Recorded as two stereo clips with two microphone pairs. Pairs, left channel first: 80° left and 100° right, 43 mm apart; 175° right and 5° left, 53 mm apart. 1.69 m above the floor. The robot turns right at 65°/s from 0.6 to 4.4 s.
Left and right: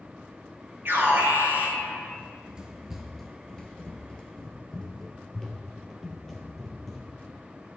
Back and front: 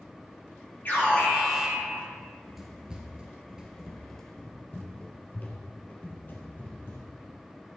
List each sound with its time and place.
0.8 s an alarm: 125° right, 3.5 m; by 2.1 s 45° right, 3.5 m
2.2 s running footsteps: 100° right, 1.8 m; by 7.3 s 155° left, 3 m